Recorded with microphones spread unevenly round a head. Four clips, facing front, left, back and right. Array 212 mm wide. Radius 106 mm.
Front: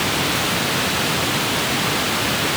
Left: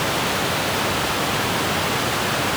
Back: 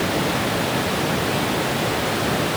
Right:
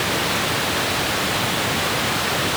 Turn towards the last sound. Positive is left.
No sound to turn to.